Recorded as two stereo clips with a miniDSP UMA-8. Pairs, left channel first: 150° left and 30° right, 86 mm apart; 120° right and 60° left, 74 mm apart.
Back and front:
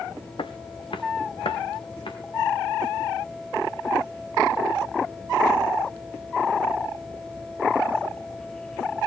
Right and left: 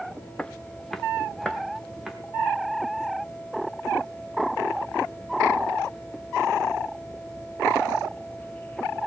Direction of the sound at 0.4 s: 165° left.